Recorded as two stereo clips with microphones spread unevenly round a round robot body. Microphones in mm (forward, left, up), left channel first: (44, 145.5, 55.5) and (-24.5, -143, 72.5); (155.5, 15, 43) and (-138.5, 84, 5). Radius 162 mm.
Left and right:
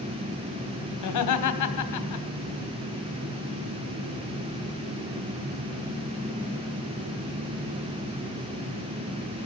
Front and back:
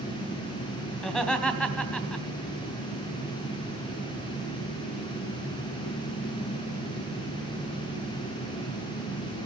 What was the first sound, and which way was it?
Laughter, 75° left.